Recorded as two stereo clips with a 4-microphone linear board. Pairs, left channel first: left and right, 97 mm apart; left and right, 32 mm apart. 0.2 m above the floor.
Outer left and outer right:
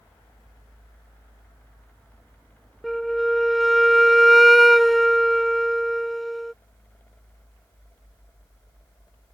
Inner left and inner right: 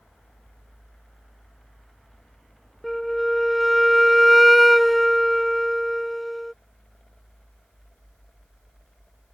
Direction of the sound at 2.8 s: Centre (ahead or behind).